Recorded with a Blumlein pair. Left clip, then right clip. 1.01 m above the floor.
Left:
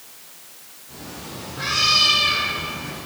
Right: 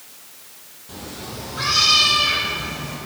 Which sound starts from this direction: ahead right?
A cat meowing, at 0.9 s.